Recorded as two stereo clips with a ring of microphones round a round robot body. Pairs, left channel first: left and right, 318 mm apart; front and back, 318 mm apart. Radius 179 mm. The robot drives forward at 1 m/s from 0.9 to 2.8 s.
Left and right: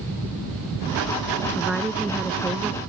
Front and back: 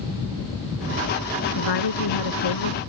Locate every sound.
1.6 s a woman speaking: straight ahead